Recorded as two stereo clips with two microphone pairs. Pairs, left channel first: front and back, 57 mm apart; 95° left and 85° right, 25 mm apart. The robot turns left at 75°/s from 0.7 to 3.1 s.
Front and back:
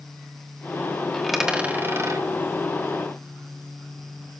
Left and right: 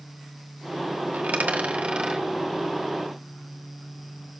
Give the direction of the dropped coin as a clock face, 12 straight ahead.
2 o'clock.